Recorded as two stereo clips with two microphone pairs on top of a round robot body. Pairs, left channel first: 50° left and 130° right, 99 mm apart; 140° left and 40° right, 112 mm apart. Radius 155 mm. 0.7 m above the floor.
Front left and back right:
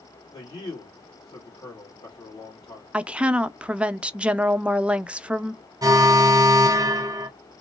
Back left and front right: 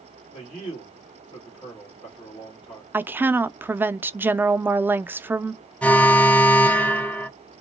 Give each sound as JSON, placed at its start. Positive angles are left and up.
{"t": 0.3, "sound": "a man speaking", "azimuth_deg": 90, "distance_m": 2.0}
{"t": 2.9, "sound": "a woman speaking", "azimuth_deg": -55, "distance_m": 0.6}
{"t": 5.8, "sound": "an alarm", "azimuth_deg": -140, "distance_m": 1.0}